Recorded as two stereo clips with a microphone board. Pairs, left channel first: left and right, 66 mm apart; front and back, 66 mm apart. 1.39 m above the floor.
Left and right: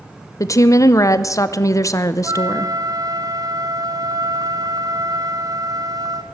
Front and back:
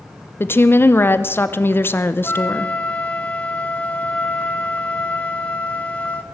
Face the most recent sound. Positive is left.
turn(degrees=-70)